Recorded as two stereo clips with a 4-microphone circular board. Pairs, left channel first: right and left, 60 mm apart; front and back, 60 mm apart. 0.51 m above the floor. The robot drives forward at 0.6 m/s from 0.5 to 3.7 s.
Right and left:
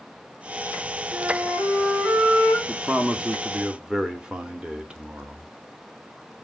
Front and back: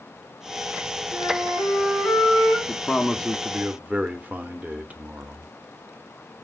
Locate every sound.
1.1 s a flute: 45° left, 4.5 m; by 2.6 s 50° left, 4 m
2.7 s a man speaking: 30° left, 0.7 m; by 5.5 s 150° left, 0.7 m